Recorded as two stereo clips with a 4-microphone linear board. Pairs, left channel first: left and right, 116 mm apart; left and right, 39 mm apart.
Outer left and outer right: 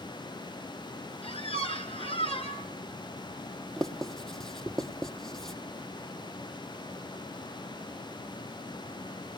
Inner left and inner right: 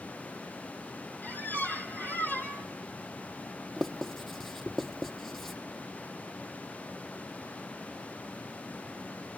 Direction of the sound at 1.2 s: 55° left (ahead or behind).